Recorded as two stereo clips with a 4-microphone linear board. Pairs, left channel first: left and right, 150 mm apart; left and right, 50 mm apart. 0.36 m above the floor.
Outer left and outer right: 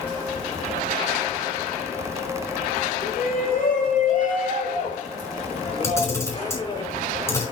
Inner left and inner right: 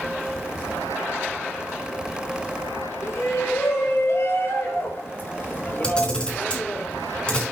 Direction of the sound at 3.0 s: 75° left (ahead or behind).